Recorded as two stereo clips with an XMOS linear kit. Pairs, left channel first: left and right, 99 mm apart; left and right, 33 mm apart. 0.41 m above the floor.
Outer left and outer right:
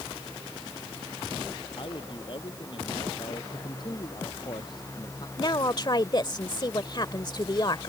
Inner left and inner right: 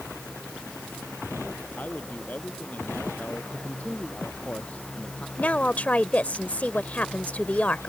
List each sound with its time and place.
1.8 s a man speaking: 55° left (ahead or behind)
3.5 s a man speaking: 50° left (ahead or behind)
5.4 s a woman speaking: 45° left (ahead or behind)